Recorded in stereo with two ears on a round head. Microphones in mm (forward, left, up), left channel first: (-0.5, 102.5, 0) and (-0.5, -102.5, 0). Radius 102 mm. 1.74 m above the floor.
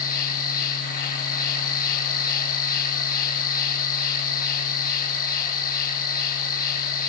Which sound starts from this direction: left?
An insect, at 0.0 s.